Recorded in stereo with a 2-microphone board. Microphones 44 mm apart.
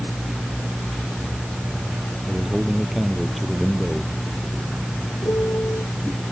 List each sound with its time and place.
2.3 s a man speaking: centre (ahead or behind)
5.2 s a piano: 85° left